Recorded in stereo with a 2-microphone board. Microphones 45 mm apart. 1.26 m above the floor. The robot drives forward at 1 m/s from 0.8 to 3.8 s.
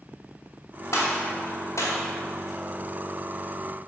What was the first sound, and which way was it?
A gunshot, 70° left (ahead or behind).